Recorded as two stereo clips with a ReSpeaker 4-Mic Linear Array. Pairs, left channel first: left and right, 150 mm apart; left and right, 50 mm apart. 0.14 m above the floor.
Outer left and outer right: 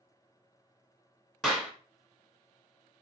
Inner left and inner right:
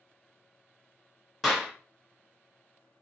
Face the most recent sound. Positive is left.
turn(degrees=5)  # may be behind; listen again after turning